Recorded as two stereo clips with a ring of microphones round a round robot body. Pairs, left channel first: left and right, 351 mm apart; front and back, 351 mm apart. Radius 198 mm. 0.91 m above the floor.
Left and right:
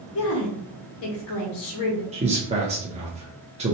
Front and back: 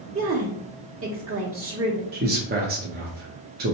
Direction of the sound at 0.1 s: 130° left.